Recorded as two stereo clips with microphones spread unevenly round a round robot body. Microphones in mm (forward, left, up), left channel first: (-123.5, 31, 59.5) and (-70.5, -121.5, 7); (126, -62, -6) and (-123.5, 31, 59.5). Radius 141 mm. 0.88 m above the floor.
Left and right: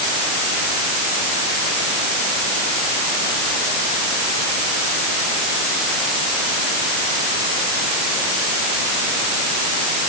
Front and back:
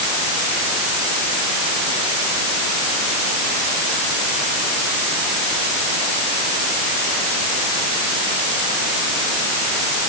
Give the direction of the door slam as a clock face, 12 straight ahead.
No door slam in this recording.